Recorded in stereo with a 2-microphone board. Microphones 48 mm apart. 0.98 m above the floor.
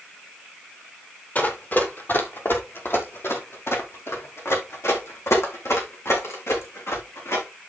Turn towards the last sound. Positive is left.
turn(degrees=80)